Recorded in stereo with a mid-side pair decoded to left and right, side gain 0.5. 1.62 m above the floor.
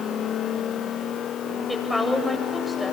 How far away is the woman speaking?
About 8 m.